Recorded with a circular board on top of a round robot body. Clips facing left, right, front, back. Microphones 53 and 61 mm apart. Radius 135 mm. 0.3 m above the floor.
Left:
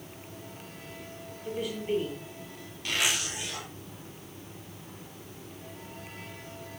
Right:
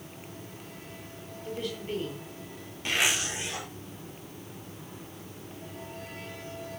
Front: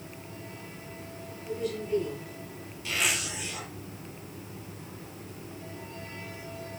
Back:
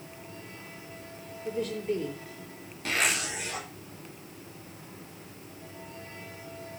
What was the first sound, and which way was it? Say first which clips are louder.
A woman speaking: left 3 dB, back 1 dB; 170° left.